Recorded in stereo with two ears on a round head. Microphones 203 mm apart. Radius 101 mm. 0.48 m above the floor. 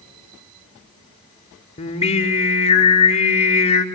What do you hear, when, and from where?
1.8 s singing: 30° left (ahead or behind), 1.6 m